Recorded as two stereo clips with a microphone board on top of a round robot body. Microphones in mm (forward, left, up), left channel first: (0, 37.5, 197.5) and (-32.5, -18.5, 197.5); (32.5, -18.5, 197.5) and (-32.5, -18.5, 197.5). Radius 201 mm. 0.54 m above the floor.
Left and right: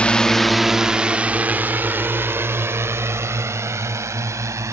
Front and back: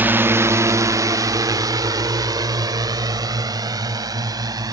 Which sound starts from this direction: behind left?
A drone, at 0.0 s.